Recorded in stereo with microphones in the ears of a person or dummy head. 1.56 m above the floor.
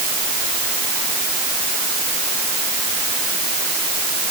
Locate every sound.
Only background noise.